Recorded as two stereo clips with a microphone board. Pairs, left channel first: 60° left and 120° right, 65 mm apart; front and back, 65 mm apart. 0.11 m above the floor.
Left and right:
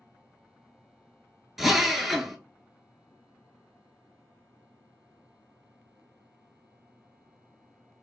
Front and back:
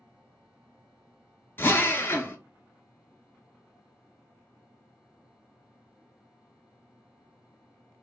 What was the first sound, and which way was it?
A drill, 35° right.